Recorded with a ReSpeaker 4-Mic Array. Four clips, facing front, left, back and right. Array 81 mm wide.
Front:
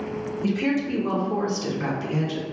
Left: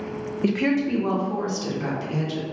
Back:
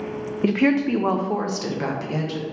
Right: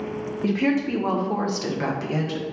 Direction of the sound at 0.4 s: 165° left.